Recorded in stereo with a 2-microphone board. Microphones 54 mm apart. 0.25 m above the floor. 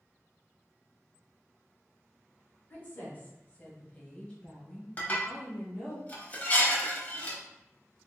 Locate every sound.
2.7 s a woman speaking: 35° left (ahead or behind), 1.4 m; by 6.0 s 5° right (ahead or behind), 1.8 m
5.0 s dishes clattering: 30° left (ahead or behind), 0.8 m